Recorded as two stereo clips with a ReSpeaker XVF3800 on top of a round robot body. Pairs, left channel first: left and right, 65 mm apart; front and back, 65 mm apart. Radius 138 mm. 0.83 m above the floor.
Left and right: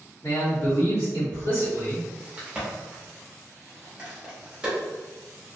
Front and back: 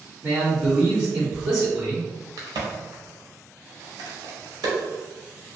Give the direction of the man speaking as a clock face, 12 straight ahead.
9 o'clock.